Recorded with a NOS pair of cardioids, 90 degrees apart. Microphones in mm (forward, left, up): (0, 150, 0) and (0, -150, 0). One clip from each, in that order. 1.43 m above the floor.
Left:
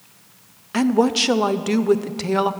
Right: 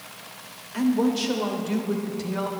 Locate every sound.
0.7 s a woman speaking: 55° left, 0.6 m